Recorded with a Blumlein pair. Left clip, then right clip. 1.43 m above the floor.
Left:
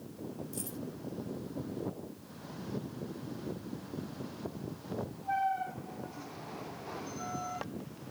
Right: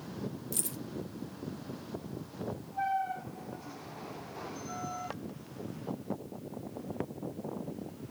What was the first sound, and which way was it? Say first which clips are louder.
Keys jangling: right 4 dB; 45° right.